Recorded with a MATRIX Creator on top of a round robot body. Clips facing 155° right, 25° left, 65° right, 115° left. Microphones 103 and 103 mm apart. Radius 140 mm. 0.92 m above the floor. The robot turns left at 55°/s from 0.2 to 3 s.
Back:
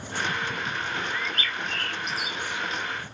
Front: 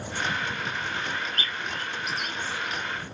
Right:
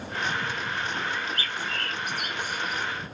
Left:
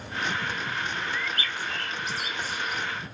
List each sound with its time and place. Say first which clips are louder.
1.1 s a bird: back 1 dB, even; 15° right; by 2.8 s 105° right